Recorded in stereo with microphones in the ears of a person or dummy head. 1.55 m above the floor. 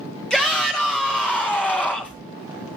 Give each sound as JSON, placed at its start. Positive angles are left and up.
{"t": 0.3, "sound": "a shout", "side_deg": 0, "distance_m": 3.5}